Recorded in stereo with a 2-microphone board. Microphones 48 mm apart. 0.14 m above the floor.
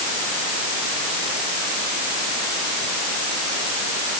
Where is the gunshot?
No gunshot in this recording.